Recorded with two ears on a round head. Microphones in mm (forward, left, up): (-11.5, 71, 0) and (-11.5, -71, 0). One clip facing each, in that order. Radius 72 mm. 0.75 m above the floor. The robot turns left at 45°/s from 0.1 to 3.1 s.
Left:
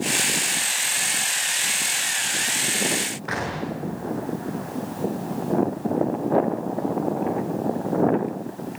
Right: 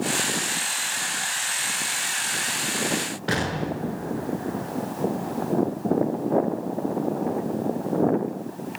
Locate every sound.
3.3 s an explosion: 35° right (ahead or behind), 5.5 m